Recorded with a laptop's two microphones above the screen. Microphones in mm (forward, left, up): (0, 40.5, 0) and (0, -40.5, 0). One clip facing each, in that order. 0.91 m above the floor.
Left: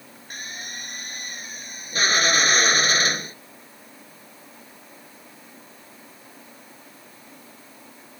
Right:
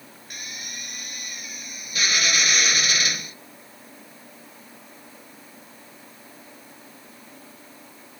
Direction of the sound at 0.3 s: 40° left (ahead or behind).